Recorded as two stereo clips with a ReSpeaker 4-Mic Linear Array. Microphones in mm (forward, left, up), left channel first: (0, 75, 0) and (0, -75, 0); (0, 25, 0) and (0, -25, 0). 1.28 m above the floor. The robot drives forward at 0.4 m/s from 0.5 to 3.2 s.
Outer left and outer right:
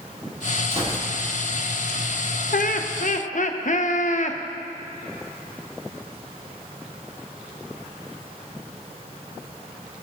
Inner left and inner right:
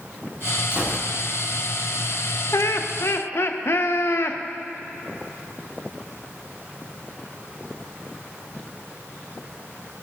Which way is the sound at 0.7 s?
40° right (ahead or behind).